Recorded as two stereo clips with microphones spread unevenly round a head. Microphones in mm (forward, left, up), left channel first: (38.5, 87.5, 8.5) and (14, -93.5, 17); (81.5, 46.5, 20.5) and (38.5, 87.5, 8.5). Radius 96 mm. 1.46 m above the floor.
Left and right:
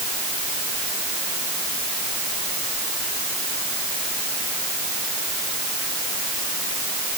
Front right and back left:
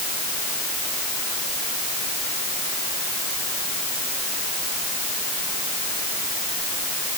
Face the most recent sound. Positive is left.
No sound to turn to.